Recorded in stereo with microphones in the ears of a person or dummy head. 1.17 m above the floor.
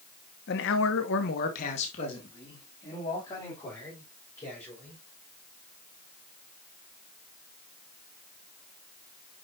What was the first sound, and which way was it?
A man speaking, 50° left (ahead or behind).